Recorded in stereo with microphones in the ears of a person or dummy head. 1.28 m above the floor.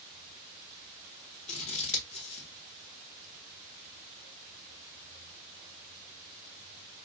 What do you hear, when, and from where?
1.5 s scissors: 30° left (ahead or behind), 1.3 m